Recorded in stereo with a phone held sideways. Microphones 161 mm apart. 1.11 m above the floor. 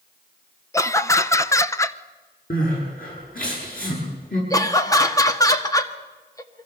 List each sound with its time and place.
0.7 s laughter: 15° left (ahead or behind), 0.8 m
2.5 s crying: 60° left (ahead or behind), 7.5 m
4.5 s laughter: 20° left (ahead or behind), 1.6 m